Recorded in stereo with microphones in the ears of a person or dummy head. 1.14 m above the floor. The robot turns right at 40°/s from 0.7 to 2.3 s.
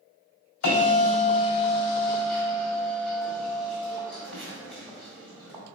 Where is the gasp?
I don't hear a gasp.